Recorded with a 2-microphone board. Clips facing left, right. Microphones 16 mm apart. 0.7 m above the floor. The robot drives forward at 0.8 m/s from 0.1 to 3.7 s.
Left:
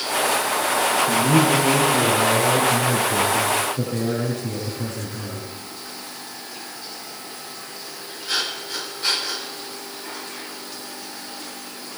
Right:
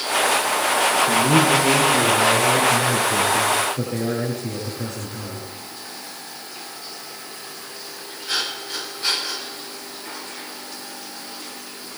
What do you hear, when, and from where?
1.1 s a man speaking: 65° right (ahead or behind), 8.5 m; by 5.5 s 55° right (ahead or behind), 9.5 m